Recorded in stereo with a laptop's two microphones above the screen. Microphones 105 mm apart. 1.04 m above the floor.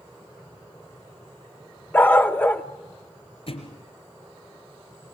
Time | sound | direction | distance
1.9 | a dog barking | 20° left (ahead or behind) | 0.6 m
3.5 | a thud | 65° left (ahead or behind) | 3.5 m